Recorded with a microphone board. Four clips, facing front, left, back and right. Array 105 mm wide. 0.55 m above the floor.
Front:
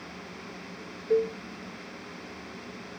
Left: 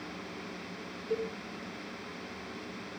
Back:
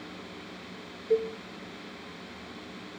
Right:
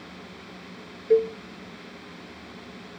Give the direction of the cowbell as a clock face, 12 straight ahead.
3 o'clock.